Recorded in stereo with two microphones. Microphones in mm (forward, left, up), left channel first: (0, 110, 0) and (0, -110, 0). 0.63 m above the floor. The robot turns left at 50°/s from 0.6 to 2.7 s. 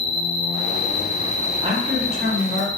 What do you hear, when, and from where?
0.0 s an insect: 175° left, 0.7 m; by 2.8 s 70° left, 0.7 m
1.6 s a man speaking: 25° right, 1.1 m; by 2.7 s 80° right, 1.1 m